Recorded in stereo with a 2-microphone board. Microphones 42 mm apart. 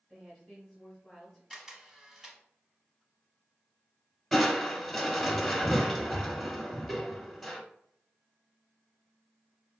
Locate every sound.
0.1 s a woman speaking: centre (ahead or behind), 1.4 m
1.5 s a camera shutter: 10° right (ahead or behind), 0.8 m
4.3 s crushing: 5° left (ahead or behind), 0.7 m